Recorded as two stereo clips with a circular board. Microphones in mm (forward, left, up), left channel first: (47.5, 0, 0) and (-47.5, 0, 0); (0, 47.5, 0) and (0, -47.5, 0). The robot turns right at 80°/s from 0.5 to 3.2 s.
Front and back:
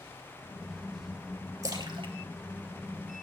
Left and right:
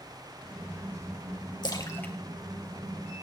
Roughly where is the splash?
Behind left.